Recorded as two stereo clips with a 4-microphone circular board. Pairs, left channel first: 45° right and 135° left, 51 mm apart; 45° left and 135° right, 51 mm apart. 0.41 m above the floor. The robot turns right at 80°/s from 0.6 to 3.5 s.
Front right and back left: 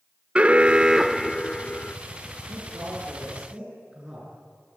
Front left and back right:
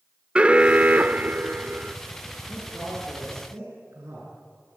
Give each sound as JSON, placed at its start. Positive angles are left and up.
{"t": 0.3, "sound": "an alarm", "azimuth_deg": 175, "distance_m": 0.6}
{"t": 2.5, "sound": "a man speaking", "azimuth_deg": 125, "distance_m": 6.5}